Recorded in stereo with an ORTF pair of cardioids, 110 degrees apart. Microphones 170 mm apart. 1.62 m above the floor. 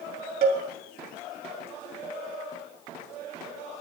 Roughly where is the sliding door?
I don't hear a sliding door.